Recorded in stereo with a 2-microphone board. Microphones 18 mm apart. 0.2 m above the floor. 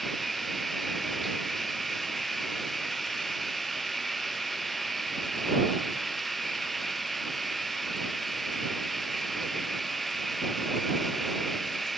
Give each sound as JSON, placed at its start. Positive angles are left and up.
{"t": 0.0, "sound": "running water", "side_deg": 10}